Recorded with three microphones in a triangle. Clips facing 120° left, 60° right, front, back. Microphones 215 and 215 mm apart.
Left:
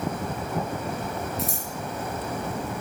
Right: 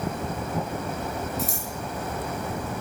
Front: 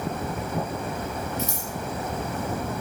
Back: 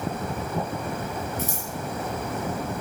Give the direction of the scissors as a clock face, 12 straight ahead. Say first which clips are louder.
Even, even; 5 o'clock.